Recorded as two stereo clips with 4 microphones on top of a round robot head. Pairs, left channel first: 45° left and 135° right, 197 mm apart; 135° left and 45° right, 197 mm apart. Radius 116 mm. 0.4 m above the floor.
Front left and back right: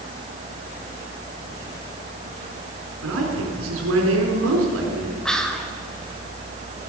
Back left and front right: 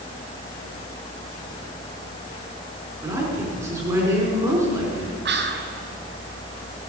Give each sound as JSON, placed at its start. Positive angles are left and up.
{"t": 3.0, "sound": "a man speaking", "azimuth_deg": -125, "distance_m": 4.0}
{"t": 5.2, "sound": "whispering", "azimuth_deg": -40, "distance_m": 2.0}